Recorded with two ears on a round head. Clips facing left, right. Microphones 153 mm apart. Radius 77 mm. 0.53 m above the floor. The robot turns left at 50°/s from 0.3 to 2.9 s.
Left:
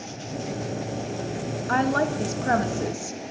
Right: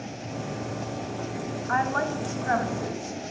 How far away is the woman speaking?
About 0.8 m.